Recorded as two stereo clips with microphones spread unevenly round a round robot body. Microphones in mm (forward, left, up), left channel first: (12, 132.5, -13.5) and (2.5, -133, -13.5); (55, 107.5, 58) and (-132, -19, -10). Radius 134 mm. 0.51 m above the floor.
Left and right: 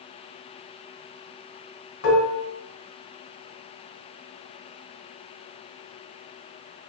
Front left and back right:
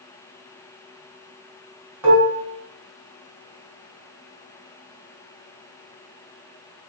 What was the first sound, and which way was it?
Dishes clattering, 130° left.